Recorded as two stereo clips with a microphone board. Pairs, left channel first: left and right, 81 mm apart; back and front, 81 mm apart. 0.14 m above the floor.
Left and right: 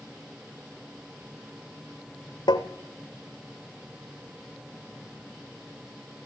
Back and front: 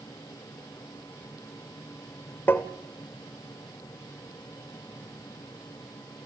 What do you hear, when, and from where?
2.5 s tapping: 115° left, 1.8 m